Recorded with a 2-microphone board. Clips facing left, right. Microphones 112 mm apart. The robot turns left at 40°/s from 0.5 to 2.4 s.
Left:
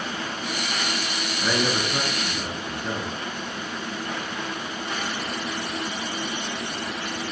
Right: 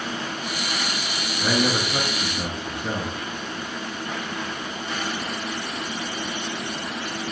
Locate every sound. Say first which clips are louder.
1.4 s a man speaking: right 2 dB; 10° right (ahead or behind), 1.2 m; by 3.1 s 20° right (ahead or behind), 1.2 m